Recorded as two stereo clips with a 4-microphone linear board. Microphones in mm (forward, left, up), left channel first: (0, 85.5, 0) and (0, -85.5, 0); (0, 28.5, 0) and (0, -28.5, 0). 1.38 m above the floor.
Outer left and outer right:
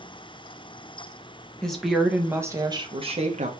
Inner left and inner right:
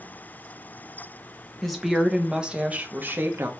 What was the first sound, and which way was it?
A woman speaking, 5° left (ahead or behind).